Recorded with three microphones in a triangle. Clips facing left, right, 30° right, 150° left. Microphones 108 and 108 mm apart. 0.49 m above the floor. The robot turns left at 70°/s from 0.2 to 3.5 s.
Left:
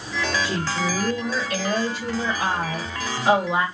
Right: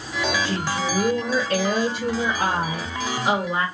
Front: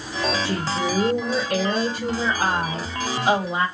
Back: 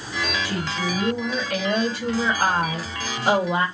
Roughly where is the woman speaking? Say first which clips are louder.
Even, front 3 dB; ahead.